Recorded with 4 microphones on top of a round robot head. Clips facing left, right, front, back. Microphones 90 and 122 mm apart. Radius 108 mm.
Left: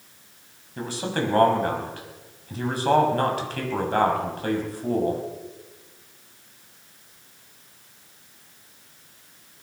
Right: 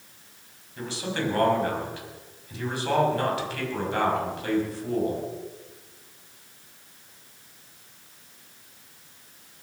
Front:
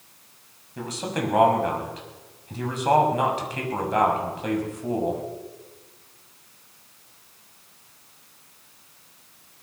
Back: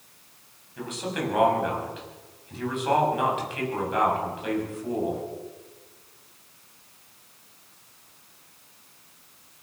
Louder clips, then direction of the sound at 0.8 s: Left 3 dB, front 2 dB; 50° left.